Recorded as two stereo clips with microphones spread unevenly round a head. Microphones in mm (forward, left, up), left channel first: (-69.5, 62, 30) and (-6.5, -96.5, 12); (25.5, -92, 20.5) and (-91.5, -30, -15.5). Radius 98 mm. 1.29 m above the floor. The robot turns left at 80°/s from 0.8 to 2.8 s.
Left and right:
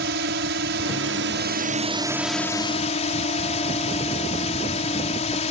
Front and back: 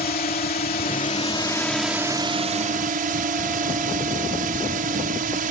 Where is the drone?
35° right; by 5.5 s 165° left.